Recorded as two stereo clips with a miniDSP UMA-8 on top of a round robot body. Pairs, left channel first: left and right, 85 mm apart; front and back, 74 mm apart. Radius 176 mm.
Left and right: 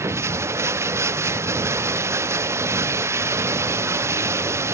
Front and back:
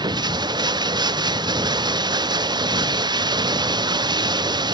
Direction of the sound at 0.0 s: 150° right.